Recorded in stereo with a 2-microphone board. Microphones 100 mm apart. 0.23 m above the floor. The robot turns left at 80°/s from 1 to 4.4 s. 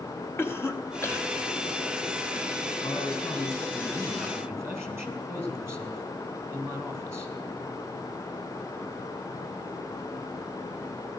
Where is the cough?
25° left (ahead or behind), 1.0 m.